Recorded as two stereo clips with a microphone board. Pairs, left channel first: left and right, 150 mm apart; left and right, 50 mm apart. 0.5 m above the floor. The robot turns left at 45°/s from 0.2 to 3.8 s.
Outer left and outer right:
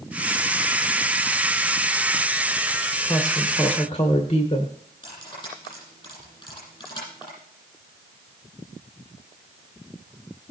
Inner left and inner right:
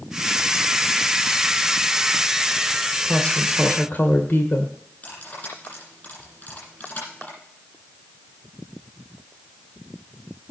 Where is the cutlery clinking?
35° left (ahead or behind), 9 m.